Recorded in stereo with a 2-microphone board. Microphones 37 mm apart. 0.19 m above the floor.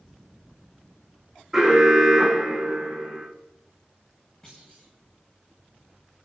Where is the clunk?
15° left (ahead or behind), 8.5 m.